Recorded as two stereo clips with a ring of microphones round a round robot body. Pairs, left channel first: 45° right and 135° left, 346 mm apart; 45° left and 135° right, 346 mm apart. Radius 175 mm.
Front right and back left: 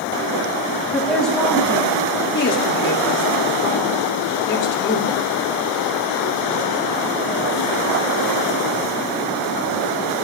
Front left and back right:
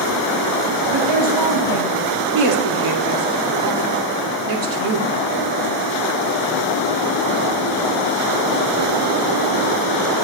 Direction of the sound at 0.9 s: 135° right.